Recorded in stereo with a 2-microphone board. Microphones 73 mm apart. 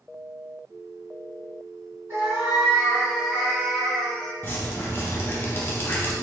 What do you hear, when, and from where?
2.1 s a cat meowing: 40° right (ahead or behind), 2.0 m; by 4.3 s 5° left (ahead or behind), 1.5 m
4.4 s dripping: 30° left (ahead or behind), 0.6 m